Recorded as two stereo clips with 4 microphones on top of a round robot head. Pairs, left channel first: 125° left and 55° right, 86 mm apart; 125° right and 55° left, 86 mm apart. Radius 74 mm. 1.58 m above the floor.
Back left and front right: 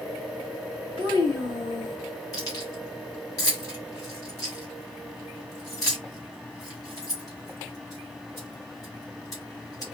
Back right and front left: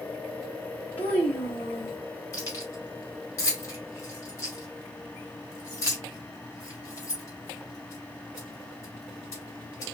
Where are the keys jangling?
Straight behind, 1.5 m.